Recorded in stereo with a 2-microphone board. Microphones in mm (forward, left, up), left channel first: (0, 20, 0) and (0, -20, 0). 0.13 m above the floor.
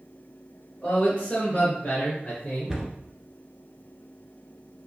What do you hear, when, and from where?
0.8 s a man speaking: 15° left (ahead or behind), 1.9 m; by 2.8 s 25° left (ahead or behind), 1.5 m
2.7 s a cupboard door: 5° right (ahead or behind), 1.4 m